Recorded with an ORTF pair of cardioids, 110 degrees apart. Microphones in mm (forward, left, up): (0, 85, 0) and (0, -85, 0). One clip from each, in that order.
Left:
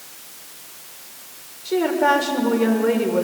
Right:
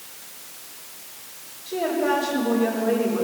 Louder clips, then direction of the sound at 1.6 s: Left 5 dB; 70° left.